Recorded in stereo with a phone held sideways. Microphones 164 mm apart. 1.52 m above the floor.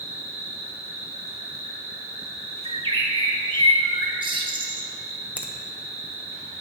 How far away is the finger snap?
About 0.5 m.